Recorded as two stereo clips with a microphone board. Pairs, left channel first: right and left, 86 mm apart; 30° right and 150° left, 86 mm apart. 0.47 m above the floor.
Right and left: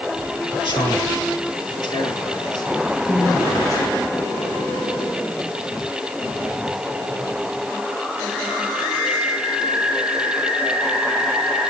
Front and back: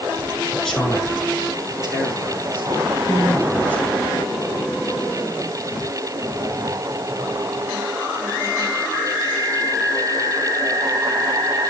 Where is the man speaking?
110° right, 6.5 m; by 3.8 s 140° right, 9 m.